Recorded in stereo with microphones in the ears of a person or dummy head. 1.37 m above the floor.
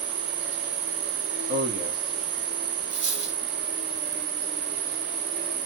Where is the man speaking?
75° right (ahead or behind), 1.0 m.